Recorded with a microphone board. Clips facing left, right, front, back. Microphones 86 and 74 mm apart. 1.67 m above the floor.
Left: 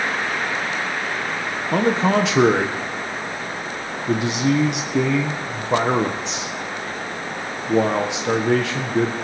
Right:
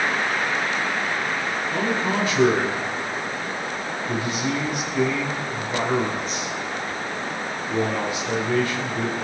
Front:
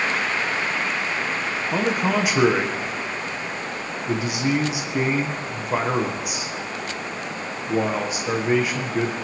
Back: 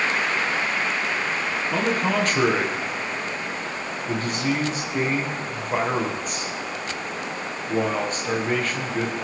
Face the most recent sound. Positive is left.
turn(degrees=80)